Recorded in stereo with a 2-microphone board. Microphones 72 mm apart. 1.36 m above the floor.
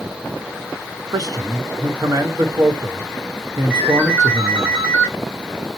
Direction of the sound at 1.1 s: 65° right (ahead or behind).